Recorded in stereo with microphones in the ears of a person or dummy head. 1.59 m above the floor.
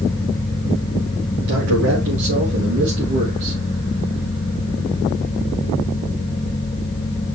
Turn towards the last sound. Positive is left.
turn(degrees=-50)  # may be behind; listen again after turning